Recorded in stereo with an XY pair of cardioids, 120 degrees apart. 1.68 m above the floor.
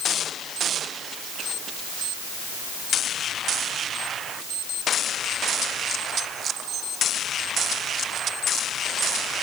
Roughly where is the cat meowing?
No cat meowing in this recording.